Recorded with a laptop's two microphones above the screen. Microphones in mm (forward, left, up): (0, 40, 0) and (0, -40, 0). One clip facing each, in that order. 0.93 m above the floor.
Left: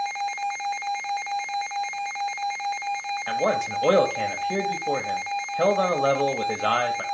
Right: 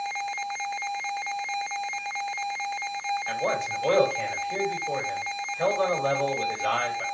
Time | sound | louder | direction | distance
3.3 | a man speaking | left 7 dB | 70° left (ahead or behind) | 1.1 m